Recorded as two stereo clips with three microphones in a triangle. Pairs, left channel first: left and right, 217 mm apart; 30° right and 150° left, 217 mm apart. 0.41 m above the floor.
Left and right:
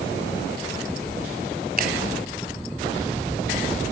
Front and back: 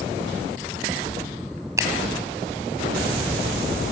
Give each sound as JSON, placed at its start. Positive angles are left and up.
{"t": 1.8, "sound": "a finger snap", "azimuth_deg": -135, "distance_m": 1.9}